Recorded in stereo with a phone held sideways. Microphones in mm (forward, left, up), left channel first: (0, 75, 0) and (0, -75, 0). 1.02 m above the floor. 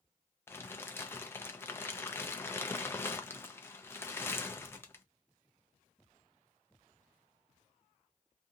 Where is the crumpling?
15° left (ahead or behind), 0.5 m.